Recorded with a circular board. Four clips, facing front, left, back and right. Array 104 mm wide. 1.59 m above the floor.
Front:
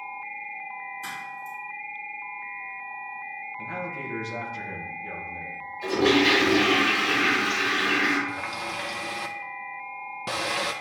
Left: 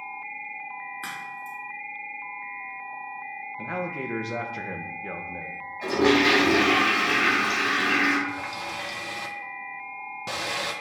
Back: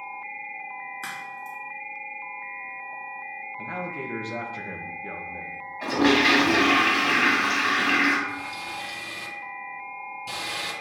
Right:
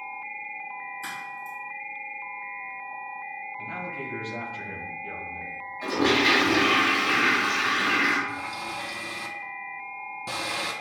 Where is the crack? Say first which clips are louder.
Even, even; 135° left, 4 m.